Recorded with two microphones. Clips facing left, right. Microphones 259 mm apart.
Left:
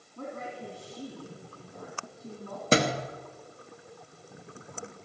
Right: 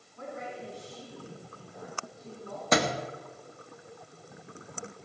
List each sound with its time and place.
0.2 s a woman speaking: 55° left (ahead or behind), 3 m
2.7 s a thud: 30° left (ahead or behind), 1.0 m